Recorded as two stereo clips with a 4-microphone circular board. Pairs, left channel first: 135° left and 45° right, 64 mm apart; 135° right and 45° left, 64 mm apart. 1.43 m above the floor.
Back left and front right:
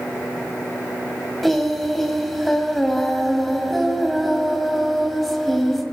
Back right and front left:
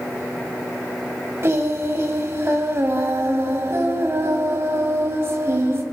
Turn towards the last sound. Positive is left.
turn(degrees=50)